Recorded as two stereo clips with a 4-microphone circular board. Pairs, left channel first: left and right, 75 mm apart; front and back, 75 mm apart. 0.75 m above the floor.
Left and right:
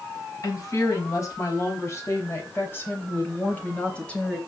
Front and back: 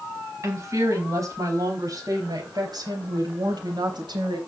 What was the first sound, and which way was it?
A woman speaking, 130° left.